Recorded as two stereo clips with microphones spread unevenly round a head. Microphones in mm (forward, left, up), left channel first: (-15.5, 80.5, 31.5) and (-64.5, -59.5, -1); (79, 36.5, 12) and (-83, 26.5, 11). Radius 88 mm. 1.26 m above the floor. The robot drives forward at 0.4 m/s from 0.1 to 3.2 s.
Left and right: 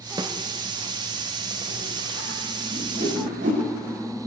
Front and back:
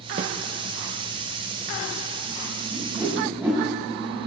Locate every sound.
0.2 s a snare drum: straight behind, 0.8 m
2.7 s a whoosh: 95° right, 5.5 m; by 3.6 s 100° right, 5.5 m